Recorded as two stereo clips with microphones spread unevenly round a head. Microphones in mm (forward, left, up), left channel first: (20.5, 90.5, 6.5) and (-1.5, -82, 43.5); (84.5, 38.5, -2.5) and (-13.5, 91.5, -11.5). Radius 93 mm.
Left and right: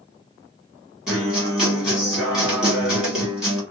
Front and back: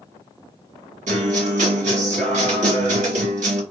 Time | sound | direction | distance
1.1 | a guitar | 175° left | 1.2 m